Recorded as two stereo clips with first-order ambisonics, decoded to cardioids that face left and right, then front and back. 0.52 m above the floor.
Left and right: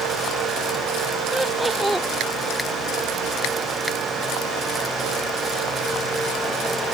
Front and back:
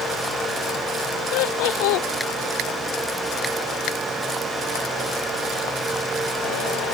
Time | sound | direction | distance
1.3 | laughter | 5° right | ?